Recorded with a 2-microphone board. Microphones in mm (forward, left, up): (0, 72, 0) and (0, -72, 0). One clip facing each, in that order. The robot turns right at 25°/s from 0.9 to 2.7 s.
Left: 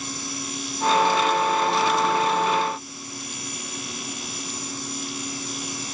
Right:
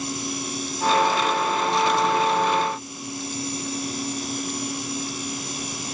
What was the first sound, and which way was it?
Only background noise.